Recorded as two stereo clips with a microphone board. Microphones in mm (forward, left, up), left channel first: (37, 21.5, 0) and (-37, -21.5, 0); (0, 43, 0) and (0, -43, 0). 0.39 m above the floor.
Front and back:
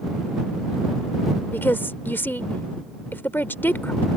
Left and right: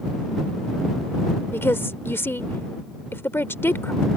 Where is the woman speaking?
65° left.